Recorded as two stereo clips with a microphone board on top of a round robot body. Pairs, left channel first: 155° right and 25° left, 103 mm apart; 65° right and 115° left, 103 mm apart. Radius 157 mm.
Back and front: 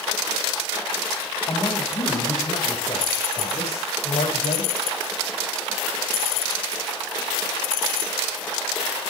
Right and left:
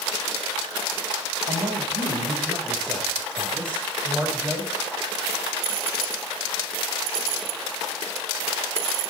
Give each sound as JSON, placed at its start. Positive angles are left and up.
{"t": 1.5, "sound": "a man speaking", "azimuth_deg": 145, "distance_m": 4.0}